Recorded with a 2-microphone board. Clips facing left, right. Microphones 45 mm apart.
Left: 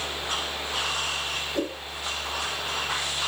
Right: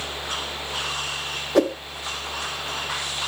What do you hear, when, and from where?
1.6 s a whoosh: 75° right (ahead or behind), 0.6 m